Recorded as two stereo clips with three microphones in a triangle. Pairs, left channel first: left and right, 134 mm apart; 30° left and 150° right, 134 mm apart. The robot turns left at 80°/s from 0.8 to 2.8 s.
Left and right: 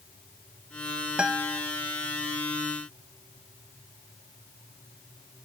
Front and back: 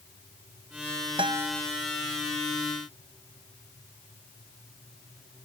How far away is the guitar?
About 0.5 m.